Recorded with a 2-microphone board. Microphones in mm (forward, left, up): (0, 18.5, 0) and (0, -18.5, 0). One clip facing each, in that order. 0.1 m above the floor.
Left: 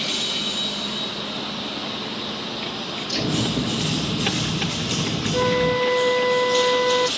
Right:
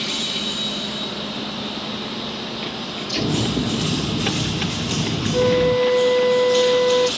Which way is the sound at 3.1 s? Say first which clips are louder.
Right 2 dB; 20° right (ahead or behind).